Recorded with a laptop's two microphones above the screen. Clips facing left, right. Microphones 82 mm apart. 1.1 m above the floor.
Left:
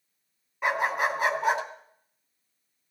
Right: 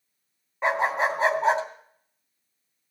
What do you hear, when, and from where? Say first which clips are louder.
0.6 s a dog barking: right 2 dB; 30° right (ahead or behind), 2.5 m